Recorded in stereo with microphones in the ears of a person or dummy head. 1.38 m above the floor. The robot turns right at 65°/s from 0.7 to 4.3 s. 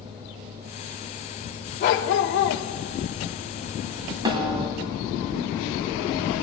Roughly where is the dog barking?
Ahead left.